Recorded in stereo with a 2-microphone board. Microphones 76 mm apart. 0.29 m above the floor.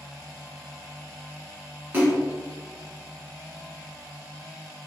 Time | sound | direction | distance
1.9 | a splash | 30° right (ahead or behind) | 1.6 m